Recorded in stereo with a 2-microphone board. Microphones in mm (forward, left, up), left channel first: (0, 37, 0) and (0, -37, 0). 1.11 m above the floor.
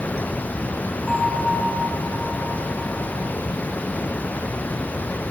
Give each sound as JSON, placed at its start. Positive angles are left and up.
{"t": 1.1, "sound": "a bell", "side_deg": -5, "distance_m": 3.0}